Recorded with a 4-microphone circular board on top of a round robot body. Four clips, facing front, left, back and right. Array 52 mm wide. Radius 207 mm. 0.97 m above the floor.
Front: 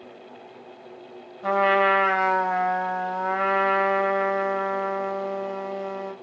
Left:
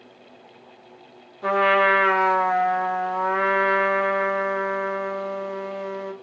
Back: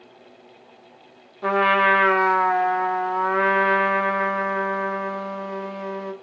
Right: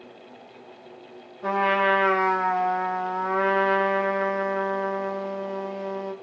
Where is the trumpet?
160° left, 2.5 m.